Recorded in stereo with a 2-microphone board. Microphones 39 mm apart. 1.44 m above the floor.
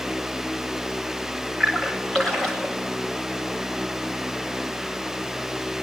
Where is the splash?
15° left (ahead or behind), 7.5 m.